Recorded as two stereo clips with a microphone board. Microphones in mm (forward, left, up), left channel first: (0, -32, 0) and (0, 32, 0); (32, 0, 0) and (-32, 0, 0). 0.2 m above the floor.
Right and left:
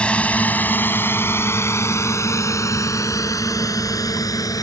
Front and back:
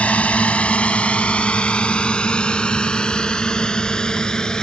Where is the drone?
40° right; by 4.6 s 80° right.